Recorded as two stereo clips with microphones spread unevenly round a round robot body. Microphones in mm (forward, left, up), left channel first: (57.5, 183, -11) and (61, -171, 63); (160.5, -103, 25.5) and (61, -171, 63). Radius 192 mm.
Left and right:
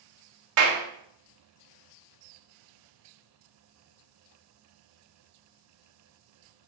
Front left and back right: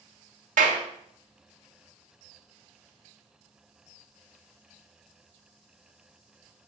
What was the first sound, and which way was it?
A clap, 140° right.